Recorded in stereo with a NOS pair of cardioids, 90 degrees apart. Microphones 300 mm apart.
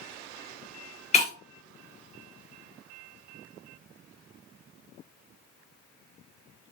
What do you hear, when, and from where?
1.1 s breaking glass: 20° left, 2 m